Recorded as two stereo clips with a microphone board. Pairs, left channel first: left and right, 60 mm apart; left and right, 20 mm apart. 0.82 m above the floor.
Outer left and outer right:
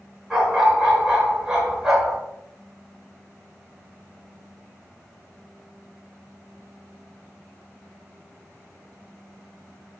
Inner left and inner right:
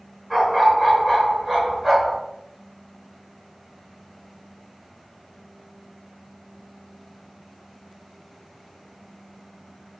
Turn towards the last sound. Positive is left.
turn(degrees=-10)  # may be behind; listen again after turning